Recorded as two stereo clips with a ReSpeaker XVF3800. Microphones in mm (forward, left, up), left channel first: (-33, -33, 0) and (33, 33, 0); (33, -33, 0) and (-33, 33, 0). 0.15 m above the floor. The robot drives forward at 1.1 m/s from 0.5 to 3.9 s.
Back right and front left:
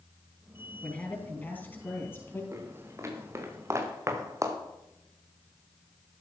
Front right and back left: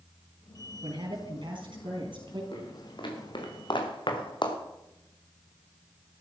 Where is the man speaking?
150° left, 3.5 m; by 2.4 s 160° left, 5 m.